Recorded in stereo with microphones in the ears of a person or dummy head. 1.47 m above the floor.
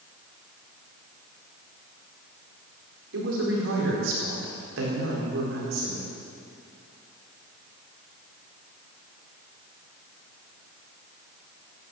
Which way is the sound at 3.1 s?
80° right.